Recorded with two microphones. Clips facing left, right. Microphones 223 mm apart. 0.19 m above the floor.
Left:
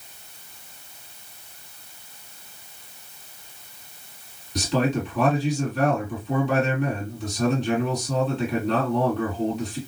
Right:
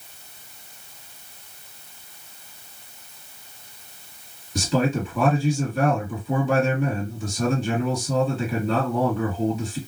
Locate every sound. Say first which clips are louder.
4.5 s a man speaking: right 1 dB; centre (ahead or behind), 3 m